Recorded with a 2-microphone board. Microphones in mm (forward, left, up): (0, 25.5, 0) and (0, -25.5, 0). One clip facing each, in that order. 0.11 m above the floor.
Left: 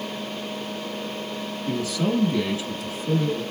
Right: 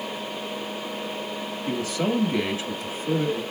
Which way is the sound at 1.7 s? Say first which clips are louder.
Left 1 dB; 20° right (ahead or behind).